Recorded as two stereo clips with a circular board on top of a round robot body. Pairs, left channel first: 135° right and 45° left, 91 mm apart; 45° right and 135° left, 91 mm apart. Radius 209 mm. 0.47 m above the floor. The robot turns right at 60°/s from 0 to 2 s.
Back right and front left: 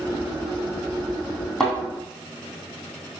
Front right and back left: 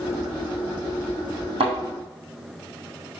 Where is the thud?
140° left, 2.5 m; by 1.8 s 150° left, 2.5 m.